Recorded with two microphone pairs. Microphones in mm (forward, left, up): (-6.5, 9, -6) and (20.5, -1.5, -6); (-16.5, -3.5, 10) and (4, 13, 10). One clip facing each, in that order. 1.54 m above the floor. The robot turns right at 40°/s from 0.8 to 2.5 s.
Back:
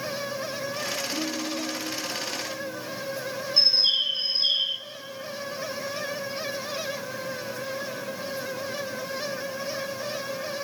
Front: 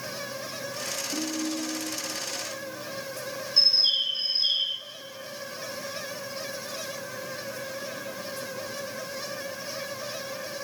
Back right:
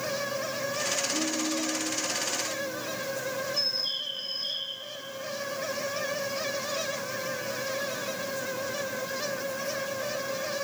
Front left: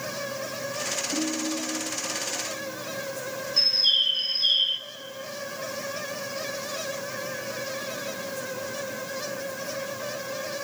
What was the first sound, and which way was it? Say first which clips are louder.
A ringtone: back 1 dB, front left 1 dB; 35° left.